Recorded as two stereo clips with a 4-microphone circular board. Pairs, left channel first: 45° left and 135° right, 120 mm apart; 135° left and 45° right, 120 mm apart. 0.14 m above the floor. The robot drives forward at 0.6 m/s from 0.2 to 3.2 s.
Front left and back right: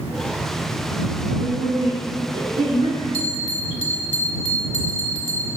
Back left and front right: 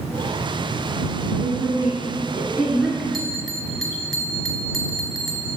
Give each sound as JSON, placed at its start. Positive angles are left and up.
{"t": 1.4, "sound": "a woman speaking", "azimuth_deg": -100, "distance_m": 2.0}
{"t": 3.1, "sound": "a bell", "azimuth_deg": 45, "distance_m": 1.0}